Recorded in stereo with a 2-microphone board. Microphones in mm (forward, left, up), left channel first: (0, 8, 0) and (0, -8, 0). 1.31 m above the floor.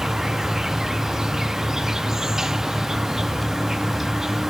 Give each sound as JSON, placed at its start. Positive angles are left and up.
{"t": 0.0, "sound": "an insect", "side_deg": -35, "distance_m": 0.8}